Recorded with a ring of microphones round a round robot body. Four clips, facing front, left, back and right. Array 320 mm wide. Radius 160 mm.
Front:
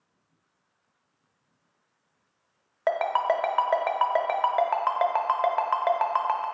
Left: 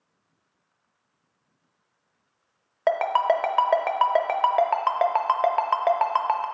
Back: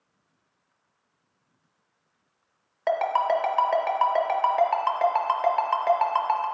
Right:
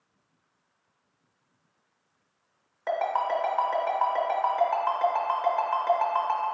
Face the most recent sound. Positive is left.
turn(degrees=70)